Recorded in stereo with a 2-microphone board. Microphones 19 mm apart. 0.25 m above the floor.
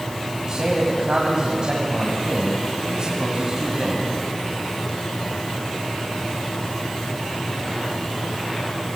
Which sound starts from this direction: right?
A man speaking, at 0.4 s.